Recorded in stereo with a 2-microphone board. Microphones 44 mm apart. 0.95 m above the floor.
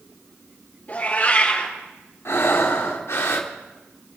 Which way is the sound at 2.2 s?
65° left (ahead or behind).